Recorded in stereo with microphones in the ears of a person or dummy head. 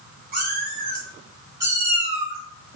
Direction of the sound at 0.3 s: 50° right (ahead or behind).